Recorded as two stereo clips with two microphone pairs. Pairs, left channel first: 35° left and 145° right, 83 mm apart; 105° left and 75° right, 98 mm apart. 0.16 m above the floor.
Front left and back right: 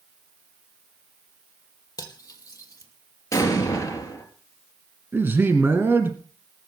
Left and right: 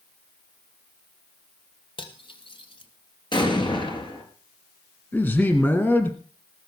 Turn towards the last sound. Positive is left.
turn(degrees=165)